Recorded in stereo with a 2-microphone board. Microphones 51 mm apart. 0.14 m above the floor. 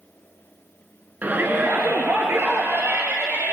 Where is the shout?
35° right (ahead or behind), 1.4 m; by 3.5 s 55° right (ahead or behind), 3.5 m.